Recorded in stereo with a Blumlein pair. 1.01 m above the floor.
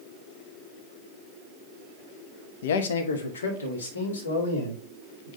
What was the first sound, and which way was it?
A man speaking, 55° left.